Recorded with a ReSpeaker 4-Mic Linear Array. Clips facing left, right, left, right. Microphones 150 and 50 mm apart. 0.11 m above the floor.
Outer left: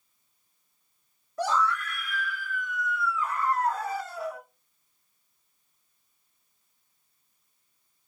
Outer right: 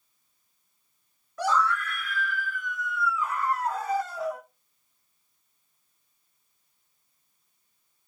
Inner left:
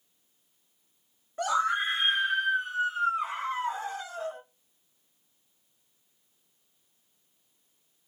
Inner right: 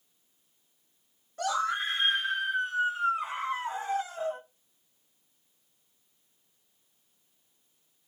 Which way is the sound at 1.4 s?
25° left (ahead or behind).